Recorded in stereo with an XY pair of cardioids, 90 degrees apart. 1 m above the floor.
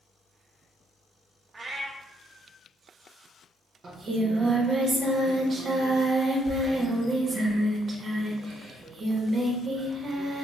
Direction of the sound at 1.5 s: 35° right.